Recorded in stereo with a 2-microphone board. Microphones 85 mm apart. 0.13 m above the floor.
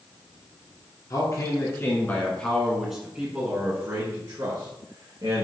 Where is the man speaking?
45° left (ahead or behind), 1.5 m; by 5.5 s 55° right (ahead or behind), 2 m.